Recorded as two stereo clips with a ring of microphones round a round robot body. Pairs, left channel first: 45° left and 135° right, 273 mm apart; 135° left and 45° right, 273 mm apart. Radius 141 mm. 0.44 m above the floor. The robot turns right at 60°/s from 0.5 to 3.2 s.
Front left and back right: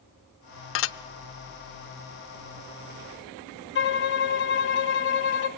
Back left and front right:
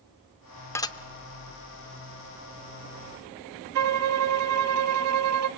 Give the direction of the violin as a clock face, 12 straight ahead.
12 o'clock.